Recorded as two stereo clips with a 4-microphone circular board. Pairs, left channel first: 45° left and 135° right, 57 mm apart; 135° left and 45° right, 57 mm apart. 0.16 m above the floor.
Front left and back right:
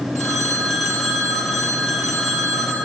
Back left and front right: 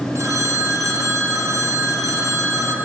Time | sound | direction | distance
0.1 | a phone ringing | 40° right | 2.5 m